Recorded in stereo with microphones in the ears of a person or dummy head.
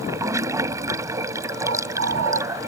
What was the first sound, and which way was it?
Running water, 20° right (ahead or behind).